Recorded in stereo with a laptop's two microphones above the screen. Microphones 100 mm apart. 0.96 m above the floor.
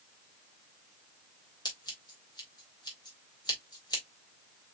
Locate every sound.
1.6 s scissors: 45° left (ahead or behind), 2 m